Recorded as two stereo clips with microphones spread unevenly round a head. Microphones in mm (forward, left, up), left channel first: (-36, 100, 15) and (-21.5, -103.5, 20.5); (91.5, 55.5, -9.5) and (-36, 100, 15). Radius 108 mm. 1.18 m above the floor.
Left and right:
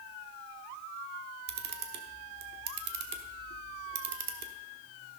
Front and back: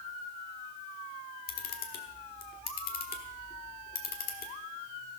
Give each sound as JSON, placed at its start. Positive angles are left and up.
{"t": 1.5, "sound": "a camera shutter", "azimuth_deg": -45, "distance_m": 1.3}